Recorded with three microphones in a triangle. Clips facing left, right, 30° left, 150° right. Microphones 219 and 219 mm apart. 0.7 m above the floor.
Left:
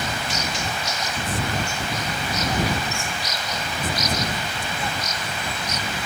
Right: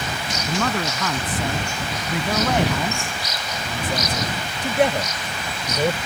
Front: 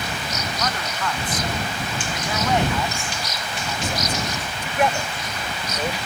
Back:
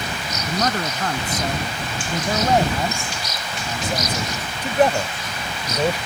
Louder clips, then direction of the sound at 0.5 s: Right 7 dB, back 8 dB; 100° right.